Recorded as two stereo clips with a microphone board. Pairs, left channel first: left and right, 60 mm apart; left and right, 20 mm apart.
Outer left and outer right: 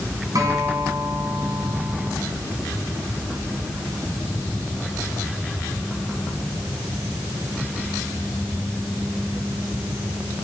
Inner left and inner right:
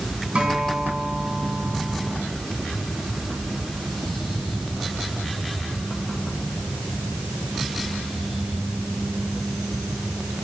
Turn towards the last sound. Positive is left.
turn(degrees=-65)  # may be behind; listen again after turning